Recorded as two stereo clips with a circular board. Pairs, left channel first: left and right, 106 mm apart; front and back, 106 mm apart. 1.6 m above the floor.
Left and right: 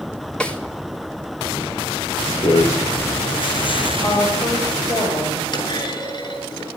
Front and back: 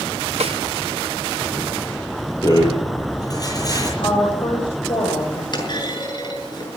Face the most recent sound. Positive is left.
turn(degrees=45)